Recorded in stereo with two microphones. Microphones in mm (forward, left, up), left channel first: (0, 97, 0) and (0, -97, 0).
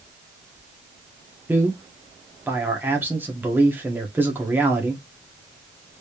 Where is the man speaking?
10° right (ahead or behind), 1.1 m.